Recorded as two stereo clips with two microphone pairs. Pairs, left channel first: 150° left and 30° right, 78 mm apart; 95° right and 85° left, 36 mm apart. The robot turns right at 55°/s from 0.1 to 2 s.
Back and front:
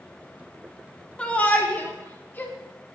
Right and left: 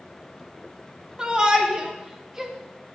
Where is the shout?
95° left, 0.7 m; by 2.5 s 140° left, 0.7 m.